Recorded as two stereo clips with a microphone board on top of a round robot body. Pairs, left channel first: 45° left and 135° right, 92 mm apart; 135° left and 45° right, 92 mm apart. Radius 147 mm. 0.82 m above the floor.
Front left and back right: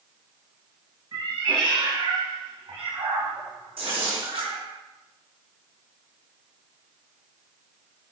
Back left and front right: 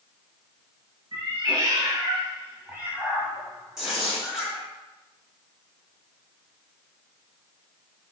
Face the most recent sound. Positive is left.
turn(degrees=-130)